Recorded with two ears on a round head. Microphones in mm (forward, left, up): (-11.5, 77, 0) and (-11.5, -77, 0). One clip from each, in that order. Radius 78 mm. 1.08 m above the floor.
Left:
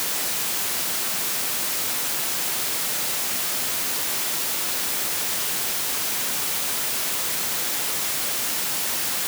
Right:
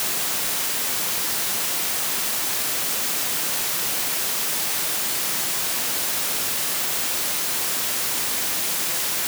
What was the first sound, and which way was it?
Only background noise.